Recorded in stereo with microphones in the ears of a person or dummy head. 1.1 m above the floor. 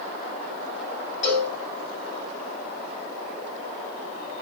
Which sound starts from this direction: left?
A cowbell, at 1.2 s.